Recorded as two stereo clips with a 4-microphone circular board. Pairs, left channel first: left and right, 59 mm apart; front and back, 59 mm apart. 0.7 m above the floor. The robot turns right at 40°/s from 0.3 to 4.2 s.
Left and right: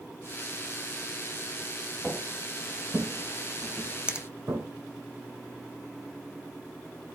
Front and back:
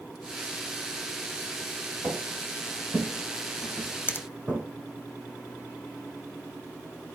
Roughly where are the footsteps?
Behind.